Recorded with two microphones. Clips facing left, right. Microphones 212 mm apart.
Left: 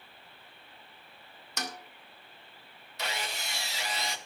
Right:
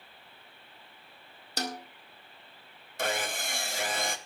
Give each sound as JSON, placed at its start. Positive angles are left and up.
{"t": 1.6, "sound": "a snare drum", "side_deg": -35, "distance_m": 1.8}
{"t": 3.0, "sound": "sawing", "side_deg": -50, "distance_m": 1.1}